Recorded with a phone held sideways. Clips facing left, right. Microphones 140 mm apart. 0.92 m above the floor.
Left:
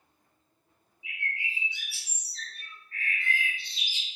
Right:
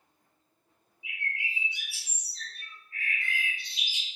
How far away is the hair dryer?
I don't hear a hair dryer.